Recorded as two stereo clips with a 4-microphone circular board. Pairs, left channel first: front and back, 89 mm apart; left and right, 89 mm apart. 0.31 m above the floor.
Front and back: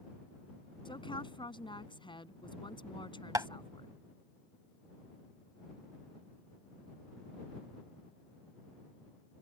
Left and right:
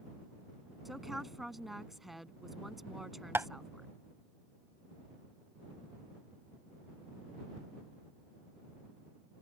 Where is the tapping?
145° right.